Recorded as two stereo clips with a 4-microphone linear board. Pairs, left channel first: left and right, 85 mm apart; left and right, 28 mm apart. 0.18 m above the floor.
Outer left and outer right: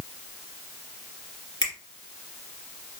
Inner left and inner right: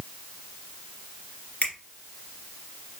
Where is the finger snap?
60° left (ahead or behind), 2.5 m.